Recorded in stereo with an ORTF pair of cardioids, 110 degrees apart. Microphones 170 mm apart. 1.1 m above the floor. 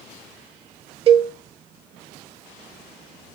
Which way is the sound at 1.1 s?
35° right.